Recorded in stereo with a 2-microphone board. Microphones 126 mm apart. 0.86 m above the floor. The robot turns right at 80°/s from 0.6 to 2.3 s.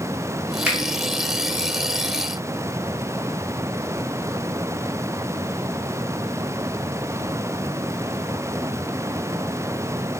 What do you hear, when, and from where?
0.7 s a finger snap: 10° right (ahead or behind), 1.0 m; by 0.8 s 5° right (ahead or behind), 1.0 m